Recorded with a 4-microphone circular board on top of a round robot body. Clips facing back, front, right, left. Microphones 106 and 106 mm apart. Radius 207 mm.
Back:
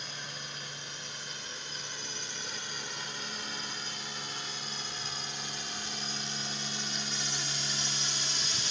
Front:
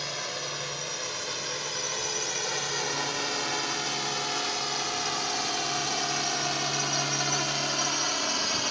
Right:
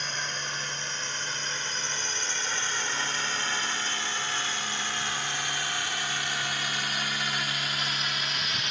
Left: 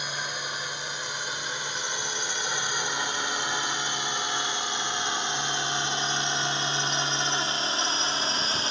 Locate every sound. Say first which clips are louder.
0.0 s a drone: front 9 dB, left 1 dB; 10° left; by 8.7 s 30° left